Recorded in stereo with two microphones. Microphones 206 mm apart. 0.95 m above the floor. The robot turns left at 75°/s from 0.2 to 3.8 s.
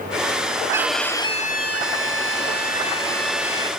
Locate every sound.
0.7 s a violin: 165° right, 0.8 m; by 3.7 s 30° right, 0.8 m